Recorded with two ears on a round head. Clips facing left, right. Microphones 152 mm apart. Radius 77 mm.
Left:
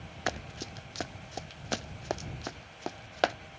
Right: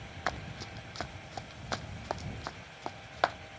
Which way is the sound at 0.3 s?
35° left (ahead or behind).